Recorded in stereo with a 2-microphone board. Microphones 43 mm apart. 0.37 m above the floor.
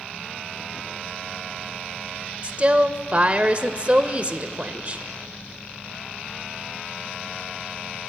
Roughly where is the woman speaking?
Right.